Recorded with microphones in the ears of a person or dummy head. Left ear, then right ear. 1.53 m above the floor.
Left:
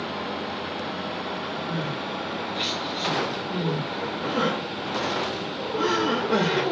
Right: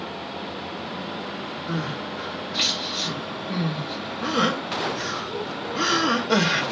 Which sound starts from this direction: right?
Crying, at 1.7 s.